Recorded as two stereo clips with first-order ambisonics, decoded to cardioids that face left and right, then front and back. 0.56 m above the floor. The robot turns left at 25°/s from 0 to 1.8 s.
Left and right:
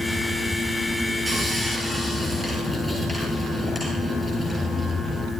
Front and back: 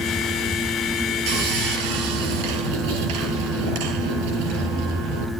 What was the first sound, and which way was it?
Sawing, 165° right.